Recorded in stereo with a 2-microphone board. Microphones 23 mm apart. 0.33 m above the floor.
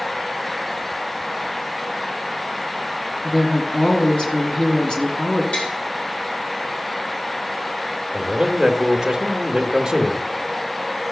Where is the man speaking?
20° right (ahead or behind), 0.9 m.